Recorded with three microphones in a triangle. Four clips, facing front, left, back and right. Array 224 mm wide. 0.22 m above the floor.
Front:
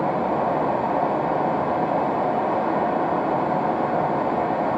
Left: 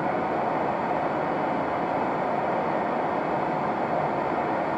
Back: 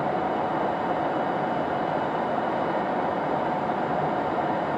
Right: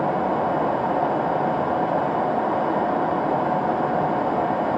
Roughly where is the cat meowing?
I don't hear a cat meowing.